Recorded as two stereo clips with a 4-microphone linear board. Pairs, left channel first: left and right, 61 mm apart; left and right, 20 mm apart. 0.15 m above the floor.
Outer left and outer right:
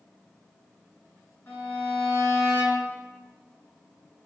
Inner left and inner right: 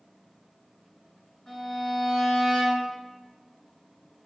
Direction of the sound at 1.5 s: 35° left (ahead or behind).